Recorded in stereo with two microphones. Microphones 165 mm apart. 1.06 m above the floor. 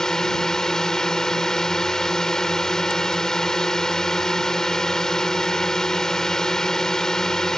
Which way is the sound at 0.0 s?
5° left (ahead or behind).